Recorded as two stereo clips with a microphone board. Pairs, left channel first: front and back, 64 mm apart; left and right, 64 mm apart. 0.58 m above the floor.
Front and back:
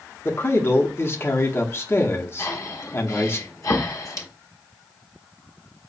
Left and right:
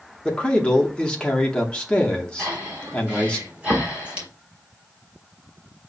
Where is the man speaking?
25° left, 0.7 m.